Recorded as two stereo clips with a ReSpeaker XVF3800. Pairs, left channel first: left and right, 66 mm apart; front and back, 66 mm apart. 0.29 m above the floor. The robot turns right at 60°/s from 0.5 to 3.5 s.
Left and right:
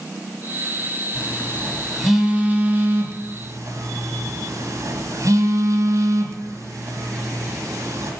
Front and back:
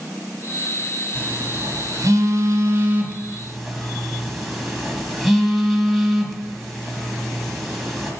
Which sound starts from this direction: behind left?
A phone buzzing, at 1.1 s.